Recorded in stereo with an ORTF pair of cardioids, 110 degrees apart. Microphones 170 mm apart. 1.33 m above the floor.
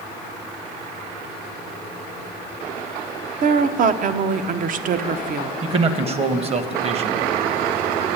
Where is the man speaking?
35° right, 1.1 m.